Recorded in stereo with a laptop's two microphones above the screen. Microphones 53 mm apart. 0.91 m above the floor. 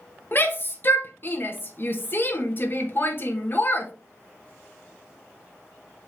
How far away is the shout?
About 1.2 m.